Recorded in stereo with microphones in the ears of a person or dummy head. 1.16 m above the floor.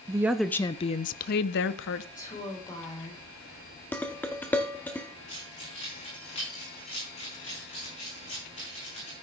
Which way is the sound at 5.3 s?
30° left (ahead or behind).